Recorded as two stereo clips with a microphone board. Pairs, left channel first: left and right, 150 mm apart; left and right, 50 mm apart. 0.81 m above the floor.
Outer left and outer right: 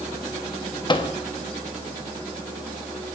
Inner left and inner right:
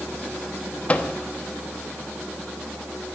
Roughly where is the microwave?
Left.